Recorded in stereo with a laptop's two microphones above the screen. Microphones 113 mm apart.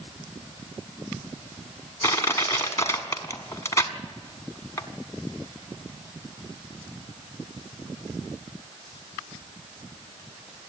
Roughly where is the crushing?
Left.